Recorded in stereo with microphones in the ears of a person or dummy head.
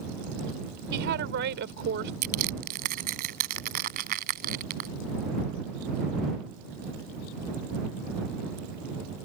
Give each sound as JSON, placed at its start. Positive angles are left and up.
{"t": 0.9, "sound": "a woman speaking", "side_deg": -60}
{"t": 2.2, "sound": "crushing", "side_deg": -50}